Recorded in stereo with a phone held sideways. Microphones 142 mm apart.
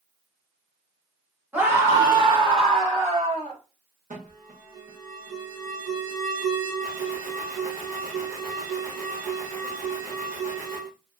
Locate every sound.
1.5 s a scream: 10° right (ahead or behind), 1.3 m; by 3.6 s 55° right (ahead or behind), 2.0 m
4.1 s an alarm: 65° right (ahead or behind), 1.2 m